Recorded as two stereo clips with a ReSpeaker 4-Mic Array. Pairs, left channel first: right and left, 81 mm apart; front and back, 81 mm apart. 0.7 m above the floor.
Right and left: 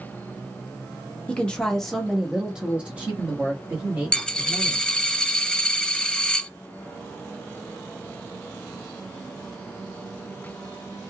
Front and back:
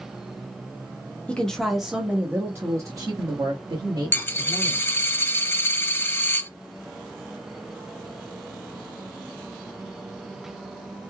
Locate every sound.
1.3 s a woman speaking: 45° right, 0.8 m; by 4.9 s 155° left, 1.8 m
4.1 s a dropped coin: 25° right, 0.5 m